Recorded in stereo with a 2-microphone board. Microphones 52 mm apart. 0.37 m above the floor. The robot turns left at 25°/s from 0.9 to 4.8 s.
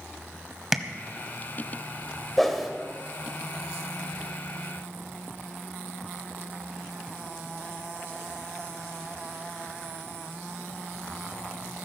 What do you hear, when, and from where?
0.7 s tapping: 5° right (ahead or behind), 1.1 m
2.4 s a whoosh: 5° left (ahead or behind), 1.6 m; by 2.7 s centre (ahead or behind), 1.6 m